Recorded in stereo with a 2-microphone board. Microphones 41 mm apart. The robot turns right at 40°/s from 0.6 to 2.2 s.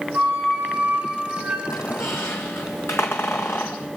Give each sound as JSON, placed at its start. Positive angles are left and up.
{"t": 0.1, "sound": "a flute", "azimuth_deg": -65, "distance_m": 7.0}
{"t": 1.7, "sound": "a squeak", "side_deg": 80, "distance_m": 1.5}